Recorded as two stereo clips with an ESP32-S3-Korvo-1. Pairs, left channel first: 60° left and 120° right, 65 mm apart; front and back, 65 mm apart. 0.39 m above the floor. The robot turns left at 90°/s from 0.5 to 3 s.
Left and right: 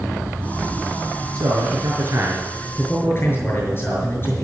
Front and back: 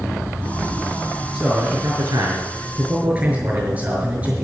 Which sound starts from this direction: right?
A man speaking, at 1.3 s.